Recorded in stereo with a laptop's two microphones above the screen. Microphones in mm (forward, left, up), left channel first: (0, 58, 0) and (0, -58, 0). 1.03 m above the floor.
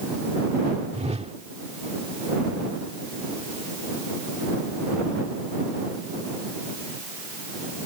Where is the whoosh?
65° right (ahead or behind).